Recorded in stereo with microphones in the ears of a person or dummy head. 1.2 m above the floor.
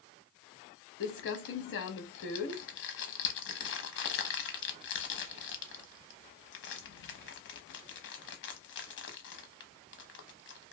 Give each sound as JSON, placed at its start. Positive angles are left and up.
{"t": 1.0, "sound": "crumpling", "side_deg": 60, "distance_m": 0.6}